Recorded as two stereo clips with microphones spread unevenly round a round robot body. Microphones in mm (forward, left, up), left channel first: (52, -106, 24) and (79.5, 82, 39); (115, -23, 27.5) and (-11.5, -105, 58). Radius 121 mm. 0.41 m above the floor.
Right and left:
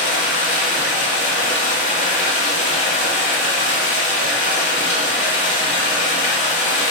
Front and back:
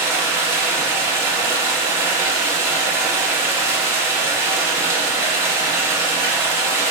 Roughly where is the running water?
Right.